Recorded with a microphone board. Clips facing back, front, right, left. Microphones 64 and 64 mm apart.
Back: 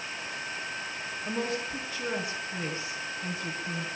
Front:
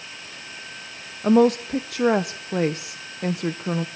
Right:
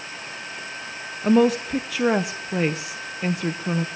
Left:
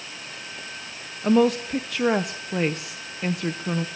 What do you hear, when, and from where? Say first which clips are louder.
1.2 s a woman speaking: front 16 dB, right 1 dB; straight ahead, 0.8 m